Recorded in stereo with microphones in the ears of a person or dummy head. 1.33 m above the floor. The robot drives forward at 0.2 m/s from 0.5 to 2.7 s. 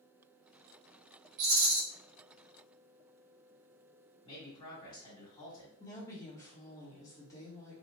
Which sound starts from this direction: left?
A man speaking, at 4.2 s.